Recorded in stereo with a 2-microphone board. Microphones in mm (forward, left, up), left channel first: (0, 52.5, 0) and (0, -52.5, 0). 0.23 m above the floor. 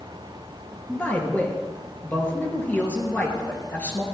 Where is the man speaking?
20° left (ahead or behind), 3 m.